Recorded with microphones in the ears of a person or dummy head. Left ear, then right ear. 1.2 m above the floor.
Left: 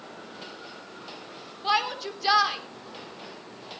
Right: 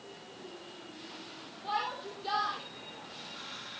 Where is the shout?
70° left (ahead or behind), 3 m.